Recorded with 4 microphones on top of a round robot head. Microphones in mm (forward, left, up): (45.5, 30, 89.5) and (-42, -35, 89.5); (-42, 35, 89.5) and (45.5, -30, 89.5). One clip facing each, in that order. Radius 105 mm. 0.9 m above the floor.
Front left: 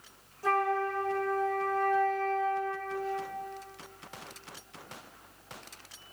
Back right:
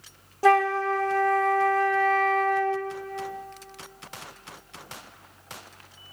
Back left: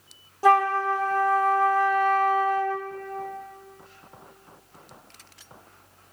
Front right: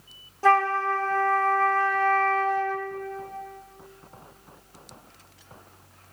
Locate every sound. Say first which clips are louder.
0.4 s a flute: back right 8 dB, back left 1 dB; 140° right, 0.6 m